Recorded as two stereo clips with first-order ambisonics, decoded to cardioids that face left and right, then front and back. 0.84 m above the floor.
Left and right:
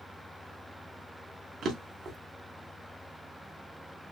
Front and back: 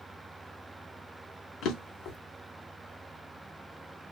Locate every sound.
1.6 s a drawer: 40° right, 0.7 m